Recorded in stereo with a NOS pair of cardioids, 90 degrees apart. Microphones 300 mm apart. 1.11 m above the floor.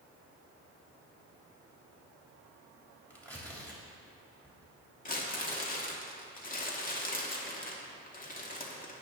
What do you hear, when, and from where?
3.1 s tearing paper: 5° left, 3 m
5.0 s crumpling: 30° left, 2 m